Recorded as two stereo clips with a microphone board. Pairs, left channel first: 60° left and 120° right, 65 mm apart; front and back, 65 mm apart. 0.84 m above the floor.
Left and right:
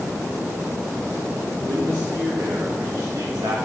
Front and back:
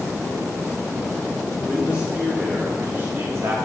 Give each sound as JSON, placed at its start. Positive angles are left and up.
{"t": 1.7, "sound": "a man speaking", "azimuth_deg": -105, "distance_m": 1.8}